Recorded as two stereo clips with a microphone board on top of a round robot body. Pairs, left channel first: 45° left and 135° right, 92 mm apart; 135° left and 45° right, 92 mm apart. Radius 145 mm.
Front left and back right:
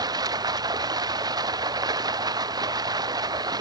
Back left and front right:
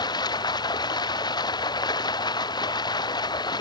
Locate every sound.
0.0 s running water: straight behind